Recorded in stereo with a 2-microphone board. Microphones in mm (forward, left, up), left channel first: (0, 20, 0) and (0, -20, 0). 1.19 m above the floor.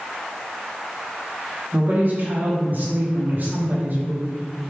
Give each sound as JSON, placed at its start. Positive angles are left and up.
{"t": 1.7, "sound": "a woman speaking", "side_deg": -45, "distance_m": 0.8}